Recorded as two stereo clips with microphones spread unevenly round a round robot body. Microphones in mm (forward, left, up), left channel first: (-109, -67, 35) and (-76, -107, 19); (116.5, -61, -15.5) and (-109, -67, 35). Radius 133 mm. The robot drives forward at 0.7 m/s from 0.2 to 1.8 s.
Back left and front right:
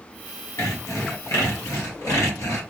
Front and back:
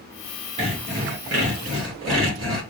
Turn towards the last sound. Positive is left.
turn(degrees=145)